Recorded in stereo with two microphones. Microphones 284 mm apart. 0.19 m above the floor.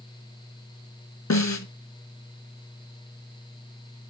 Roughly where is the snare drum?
Left.